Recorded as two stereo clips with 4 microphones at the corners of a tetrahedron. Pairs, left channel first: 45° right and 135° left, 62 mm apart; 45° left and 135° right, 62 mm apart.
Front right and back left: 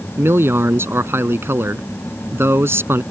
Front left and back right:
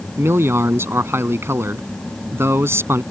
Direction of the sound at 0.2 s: Straight behind.